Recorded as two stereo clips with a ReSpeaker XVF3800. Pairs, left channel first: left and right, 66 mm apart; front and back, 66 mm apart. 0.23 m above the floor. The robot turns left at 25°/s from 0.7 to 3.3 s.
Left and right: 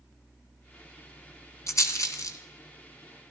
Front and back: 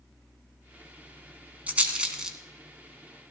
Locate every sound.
1.7 s a rattle: 115° left, 1.3 m; by 2.4 s 100° left, 1.3 m